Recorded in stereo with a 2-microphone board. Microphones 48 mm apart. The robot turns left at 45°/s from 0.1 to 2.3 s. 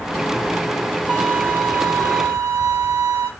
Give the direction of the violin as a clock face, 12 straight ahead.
1 o'clock.